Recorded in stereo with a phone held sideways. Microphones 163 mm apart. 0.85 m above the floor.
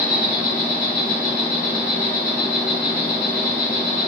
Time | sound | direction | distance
0.0 | an insect | 70° left (ahead or behind) | 1.9 m